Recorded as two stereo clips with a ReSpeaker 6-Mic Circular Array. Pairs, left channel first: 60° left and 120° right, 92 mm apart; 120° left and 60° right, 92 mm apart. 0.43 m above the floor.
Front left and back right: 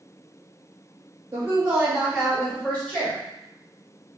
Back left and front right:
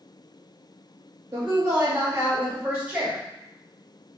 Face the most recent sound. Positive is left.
turn(degrees=5)